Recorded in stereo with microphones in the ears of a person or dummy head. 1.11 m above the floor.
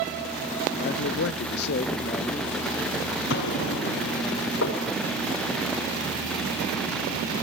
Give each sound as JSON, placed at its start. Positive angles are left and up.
{"t": 0.8, "sound": "a man speaking", "side_deg": 45, "distance_m": 0.6}
{"t": 3.3, "sound": "an explosion", "side_deg": 70, "distance_m": 8.0}
{"t": 4.6, "sound": "knocking", "side_deg": 80, "distance_m": 4.0}